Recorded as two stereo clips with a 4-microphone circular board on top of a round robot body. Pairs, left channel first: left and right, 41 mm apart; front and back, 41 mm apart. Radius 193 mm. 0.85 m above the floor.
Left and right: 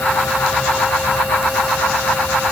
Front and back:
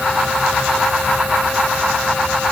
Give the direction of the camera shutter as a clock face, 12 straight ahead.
No camera shutter in this recording.